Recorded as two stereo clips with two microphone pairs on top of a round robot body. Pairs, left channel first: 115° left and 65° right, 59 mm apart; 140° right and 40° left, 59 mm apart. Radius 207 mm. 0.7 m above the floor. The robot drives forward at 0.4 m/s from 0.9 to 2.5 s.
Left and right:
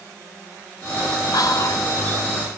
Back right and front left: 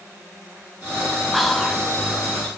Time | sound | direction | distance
1.3 | whispering | 130° left | 1.6 m